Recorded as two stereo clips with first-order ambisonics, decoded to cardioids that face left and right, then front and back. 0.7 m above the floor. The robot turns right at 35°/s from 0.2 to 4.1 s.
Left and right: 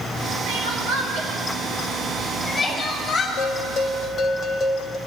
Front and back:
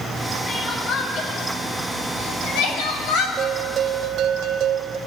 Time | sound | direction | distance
0.5 | crying | 70° right | 2.5 m
3.4 | a bell | 120° left | 0.7 m